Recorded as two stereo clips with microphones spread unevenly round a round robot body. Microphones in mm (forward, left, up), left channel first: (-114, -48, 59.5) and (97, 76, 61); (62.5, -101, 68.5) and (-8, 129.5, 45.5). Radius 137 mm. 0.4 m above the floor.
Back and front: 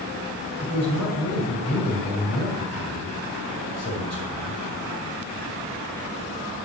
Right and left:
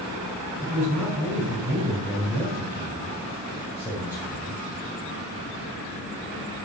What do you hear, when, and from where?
0.6 s a man speaking: 170° right, 6 m